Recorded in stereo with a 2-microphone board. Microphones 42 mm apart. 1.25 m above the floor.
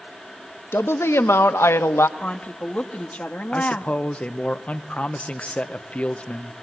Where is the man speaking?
30° left (ahead or behind), 1.0 m.